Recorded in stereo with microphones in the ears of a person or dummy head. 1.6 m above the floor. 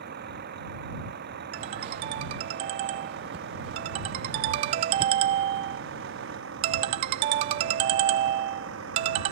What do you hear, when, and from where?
0.0 s a vehicle: 55° right (ahead or behind); by 9.3 s 70° right (ahead or behind)
1.5 s a ringtone: 35° right (ahead or behind)